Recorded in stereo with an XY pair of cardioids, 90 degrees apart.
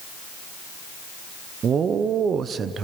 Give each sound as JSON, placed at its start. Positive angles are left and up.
{"t": 1.6, "sound": "a man speaking", "azimuth_deg": -60, "distance_m": 0.9}